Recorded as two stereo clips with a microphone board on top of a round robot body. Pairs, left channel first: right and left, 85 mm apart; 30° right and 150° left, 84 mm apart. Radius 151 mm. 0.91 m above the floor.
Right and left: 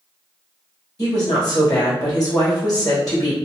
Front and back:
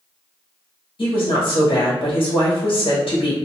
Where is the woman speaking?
40° right, 1.5 m.